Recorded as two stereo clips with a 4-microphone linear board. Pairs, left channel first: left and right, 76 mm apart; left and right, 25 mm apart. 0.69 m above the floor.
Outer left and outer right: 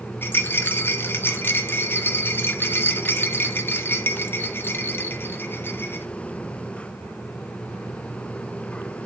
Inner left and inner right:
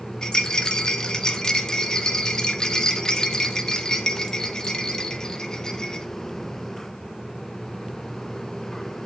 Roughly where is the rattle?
Left.